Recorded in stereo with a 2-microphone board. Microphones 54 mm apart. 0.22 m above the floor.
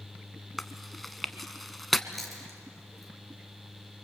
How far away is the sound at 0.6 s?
About 0.9 m.